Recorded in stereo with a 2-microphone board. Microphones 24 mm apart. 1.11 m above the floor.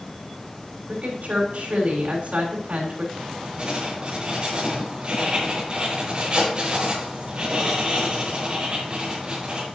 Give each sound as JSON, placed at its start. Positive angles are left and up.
{"t": 0.9, "sound": "a woman speaking", "side_deg": -70, "distance_m": 4.0}
{"t": 3.1, "sound": "writing", "side_deg": -40, "distance_m": 5.0}